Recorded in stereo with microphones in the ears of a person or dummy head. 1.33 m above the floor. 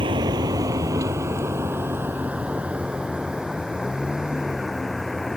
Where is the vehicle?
25° right (ahead or behind); by 5.4 s centre (ahead or behind).